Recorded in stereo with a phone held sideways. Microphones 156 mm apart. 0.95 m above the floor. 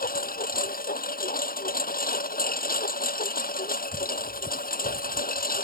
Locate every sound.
0.0 s a lawn mower: 70° left (ahead or behind)